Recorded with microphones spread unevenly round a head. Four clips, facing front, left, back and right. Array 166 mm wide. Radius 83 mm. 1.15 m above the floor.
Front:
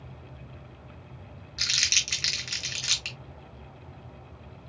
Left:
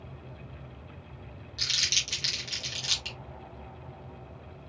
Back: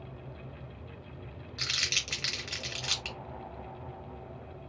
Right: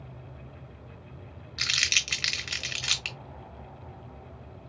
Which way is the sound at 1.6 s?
65° right.